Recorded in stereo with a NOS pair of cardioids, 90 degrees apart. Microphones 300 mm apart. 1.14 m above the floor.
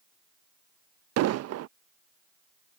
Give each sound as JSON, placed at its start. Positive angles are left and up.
{"t": 1.2, "sound": "an explosion", "azimuth_deg": -60}